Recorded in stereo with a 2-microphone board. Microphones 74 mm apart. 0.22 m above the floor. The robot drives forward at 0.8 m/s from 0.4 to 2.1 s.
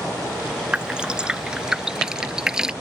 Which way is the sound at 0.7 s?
15° right (ahead or behind).